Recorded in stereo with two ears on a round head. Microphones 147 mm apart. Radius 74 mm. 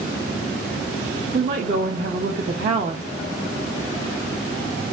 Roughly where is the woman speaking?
Right.